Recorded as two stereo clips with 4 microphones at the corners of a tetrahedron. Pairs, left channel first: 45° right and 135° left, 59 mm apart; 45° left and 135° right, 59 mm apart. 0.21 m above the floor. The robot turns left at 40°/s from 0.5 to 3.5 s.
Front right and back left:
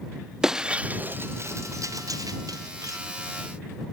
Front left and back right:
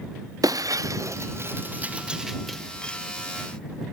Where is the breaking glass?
145° right; by 3.0 s 115° left.